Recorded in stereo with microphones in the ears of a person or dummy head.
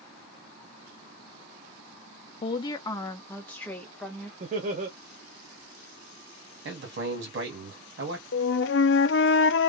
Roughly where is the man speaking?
Right.